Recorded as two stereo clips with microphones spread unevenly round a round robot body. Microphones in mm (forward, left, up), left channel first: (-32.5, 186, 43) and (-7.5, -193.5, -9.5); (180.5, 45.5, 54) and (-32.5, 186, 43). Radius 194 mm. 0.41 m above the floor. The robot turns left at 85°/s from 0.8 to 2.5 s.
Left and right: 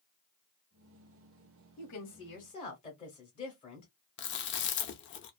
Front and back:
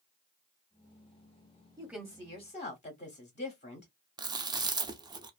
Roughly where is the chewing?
Behind left.